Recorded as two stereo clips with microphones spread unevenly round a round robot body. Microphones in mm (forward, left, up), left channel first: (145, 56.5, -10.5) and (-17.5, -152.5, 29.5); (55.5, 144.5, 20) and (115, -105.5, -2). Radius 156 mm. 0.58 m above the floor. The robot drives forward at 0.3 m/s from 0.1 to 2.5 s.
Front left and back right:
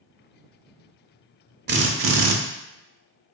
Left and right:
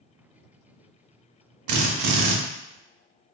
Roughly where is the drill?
Right.